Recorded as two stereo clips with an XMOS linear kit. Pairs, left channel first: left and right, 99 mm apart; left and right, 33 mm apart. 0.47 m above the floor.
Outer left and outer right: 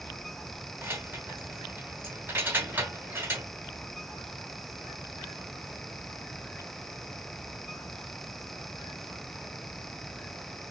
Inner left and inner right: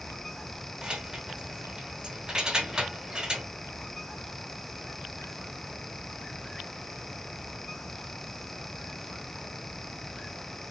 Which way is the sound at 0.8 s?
20° right (ahead or behind).